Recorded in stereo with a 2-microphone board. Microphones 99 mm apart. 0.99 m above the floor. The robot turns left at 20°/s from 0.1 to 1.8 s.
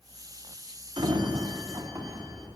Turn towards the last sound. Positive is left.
turn(degrees=-40)  # may be behind; listen again after turning